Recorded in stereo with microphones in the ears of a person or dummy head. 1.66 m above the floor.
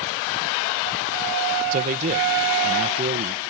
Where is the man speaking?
40° right (ahead or behind).